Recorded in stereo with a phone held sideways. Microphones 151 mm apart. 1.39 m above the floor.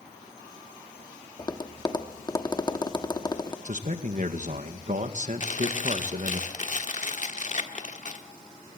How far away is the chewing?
About 1.4 m.